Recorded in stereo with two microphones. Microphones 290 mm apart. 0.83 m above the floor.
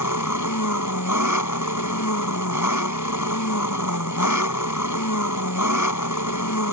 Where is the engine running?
85° left.